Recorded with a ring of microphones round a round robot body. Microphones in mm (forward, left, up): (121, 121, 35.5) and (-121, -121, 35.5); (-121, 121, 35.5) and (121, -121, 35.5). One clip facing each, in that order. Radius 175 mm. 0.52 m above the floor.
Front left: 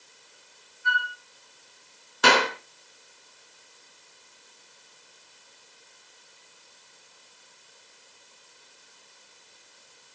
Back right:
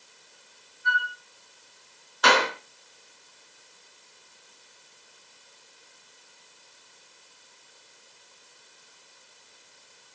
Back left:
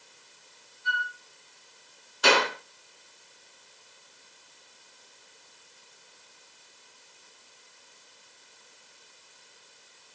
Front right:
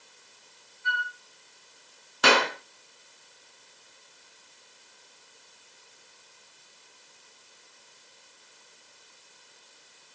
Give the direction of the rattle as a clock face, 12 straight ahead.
No rattle in this recording.